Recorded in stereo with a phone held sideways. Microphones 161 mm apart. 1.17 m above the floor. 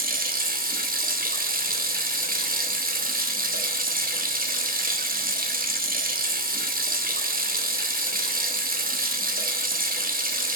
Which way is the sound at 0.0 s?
60° right (ahead or behind).